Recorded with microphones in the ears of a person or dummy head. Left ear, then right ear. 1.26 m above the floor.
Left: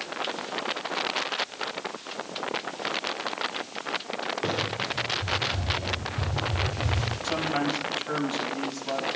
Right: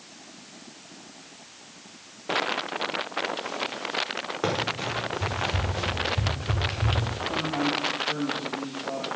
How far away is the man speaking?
About 6.5 m.